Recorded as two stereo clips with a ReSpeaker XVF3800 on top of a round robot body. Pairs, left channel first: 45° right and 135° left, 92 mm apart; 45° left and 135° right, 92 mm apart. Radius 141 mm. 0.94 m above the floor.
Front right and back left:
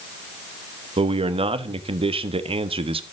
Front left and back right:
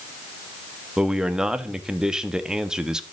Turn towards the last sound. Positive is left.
turn(degrees=140)